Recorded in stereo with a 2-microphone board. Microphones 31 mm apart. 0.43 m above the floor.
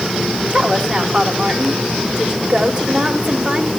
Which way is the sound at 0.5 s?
40° right (ahead or behind).